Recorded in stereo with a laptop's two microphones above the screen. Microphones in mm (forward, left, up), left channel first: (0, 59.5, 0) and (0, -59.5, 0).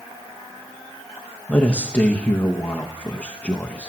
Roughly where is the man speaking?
Centre.